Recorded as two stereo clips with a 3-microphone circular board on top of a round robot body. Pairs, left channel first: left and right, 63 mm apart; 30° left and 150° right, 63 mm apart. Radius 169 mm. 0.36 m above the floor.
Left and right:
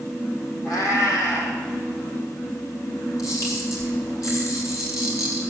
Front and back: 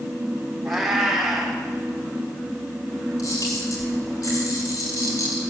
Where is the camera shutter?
55° left, 5 m.